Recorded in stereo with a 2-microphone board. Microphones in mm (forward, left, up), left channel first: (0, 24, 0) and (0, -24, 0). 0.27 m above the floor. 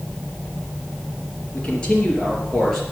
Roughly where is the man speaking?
Left.